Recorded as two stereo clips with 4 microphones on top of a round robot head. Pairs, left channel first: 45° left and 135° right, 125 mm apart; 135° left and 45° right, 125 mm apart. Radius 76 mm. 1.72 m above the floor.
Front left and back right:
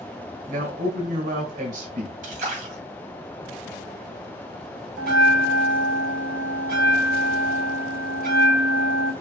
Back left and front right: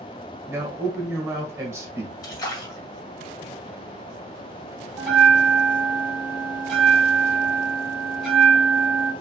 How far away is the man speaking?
About 2 m.